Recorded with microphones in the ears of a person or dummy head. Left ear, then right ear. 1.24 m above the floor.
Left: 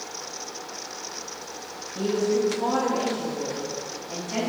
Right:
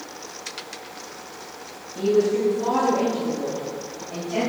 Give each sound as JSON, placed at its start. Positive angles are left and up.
{"t": 1.9, "sound": "a woman speaking", "side_deg": 70, "distance_m": 1.4}